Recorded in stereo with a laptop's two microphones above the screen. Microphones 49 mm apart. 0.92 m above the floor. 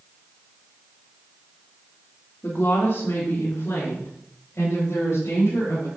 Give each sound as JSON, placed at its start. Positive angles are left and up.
{"t": 2.4, "sound": "a woman speaking", "side_deg": 60, "distance_m": 1.9}